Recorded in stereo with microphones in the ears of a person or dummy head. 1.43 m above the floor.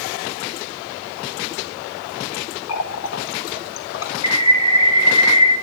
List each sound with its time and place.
2.7 s a running tap: 70° left (ahead or behind), 1.4 m
4.2 s a bird: 20° left (ahead or behind), 1.2 m